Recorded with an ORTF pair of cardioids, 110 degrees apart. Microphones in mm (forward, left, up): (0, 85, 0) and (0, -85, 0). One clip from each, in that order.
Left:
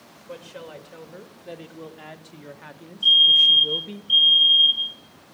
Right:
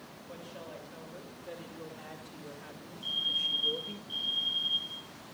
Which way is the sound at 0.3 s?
70° left.